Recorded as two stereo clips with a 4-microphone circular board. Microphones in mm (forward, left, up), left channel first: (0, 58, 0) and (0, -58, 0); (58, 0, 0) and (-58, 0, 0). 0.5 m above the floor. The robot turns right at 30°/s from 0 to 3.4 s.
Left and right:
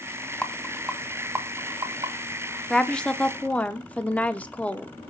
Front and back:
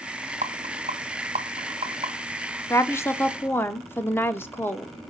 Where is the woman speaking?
10° left, 0.7 m; by 4.9 s 30° left, 0.7 m.